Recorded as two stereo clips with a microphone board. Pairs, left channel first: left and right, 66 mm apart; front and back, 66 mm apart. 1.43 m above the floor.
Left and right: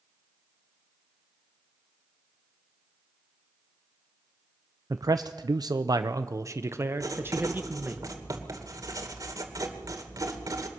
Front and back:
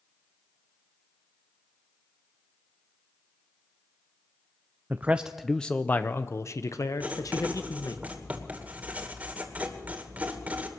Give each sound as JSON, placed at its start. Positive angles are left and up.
{"t": 4.9, "sound": "a man speaking", "azimuth_deg": -120, "distance_m": 0.6}
{"t": 7.0, "sound": "writing", "azimuth_deg": -115, "distance_m": 2.5}